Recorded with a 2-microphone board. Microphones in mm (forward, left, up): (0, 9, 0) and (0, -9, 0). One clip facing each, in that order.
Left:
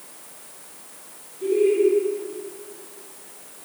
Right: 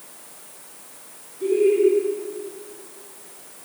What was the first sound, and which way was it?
Laughter, 10° right (ahead or behind).